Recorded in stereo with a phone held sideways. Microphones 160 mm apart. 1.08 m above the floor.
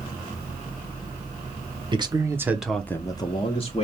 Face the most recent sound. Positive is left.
turn(degrees=40)  # may be behind; listen again after turning